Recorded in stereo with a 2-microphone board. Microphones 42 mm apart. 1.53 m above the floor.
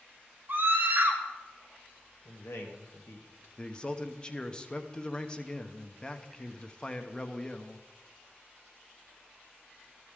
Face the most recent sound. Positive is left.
turn(degrees=20)  # may be behind; listen again after turning